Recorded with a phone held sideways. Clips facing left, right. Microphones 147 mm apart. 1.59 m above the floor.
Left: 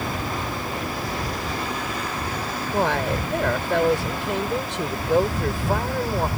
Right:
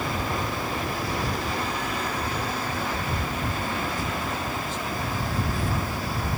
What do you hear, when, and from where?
2.7 s a woman speaking: 85° left; by 6.3 s 75° left (ahead or behind)